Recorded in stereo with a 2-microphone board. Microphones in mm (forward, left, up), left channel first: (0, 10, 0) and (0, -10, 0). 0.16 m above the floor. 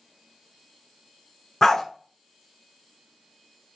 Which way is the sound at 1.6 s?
30° left (ahead or behind).